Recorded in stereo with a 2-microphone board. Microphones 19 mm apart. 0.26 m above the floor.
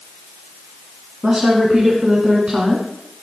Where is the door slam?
I don't hear a door slam.